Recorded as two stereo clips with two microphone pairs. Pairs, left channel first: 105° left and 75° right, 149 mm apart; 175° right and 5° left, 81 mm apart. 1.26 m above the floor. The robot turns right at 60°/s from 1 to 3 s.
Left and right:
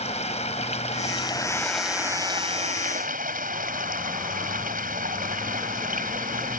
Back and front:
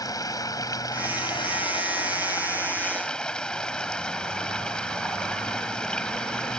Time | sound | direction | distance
0.0 | running water | 145° left | ?